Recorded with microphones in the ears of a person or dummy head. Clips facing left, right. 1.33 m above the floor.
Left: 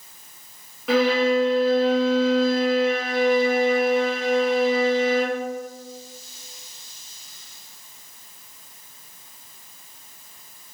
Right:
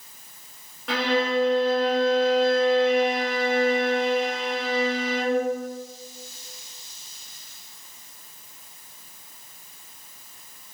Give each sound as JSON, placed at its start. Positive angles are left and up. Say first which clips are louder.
{"t": 0.9, "sound": "a violin", "louder": "left 5 dB", "side_deg": 0, "distance_m": 0.8}